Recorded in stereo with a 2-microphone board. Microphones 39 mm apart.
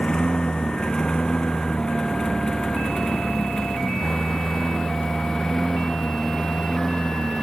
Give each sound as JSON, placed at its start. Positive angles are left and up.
{"t": 0.0, "sound": "a lawn mower", "side_deg": 20}